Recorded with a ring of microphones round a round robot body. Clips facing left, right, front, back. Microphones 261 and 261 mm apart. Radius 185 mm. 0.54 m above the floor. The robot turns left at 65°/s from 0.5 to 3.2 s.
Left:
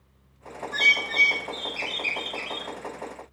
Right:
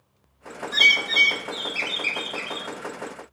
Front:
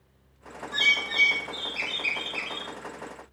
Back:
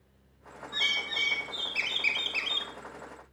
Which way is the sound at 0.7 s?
70° right.